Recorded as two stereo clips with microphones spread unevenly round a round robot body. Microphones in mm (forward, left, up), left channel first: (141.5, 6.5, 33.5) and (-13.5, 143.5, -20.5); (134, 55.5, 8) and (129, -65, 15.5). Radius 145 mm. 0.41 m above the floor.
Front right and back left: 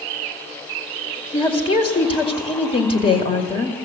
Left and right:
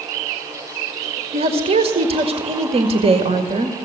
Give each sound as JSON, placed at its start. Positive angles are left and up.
{"t": 1.3, "sound": "a woman speaking", "azimuth_deg": -120, "distance_m": 2.0}